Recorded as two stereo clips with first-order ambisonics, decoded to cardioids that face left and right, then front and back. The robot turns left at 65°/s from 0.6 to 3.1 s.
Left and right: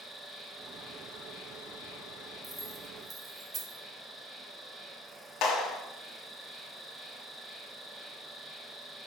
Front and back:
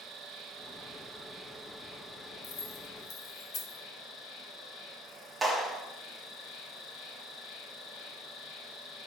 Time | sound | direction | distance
0.0 | an insect | 160° left | 0.9 m
2.4 | keys jangling | 5° left | 0.8 m
5.4 | a clap | 100° left | 1.0 m